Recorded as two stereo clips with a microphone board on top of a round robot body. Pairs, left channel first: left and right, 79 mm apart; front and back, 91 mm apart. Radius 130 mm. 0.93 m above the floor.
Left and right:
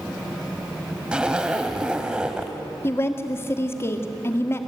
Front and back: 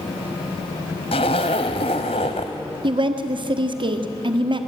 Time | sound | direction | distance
1.1 | a zipper | 15° right | 0.8 m
2.8 | a woman speaking | 150° left | 1.8 m